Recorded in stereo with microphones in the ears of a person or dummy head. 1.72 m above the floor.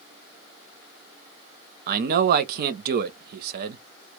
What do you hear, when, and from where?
1.9 s a man speaking: 55° right (ahead or behind), 0.6 m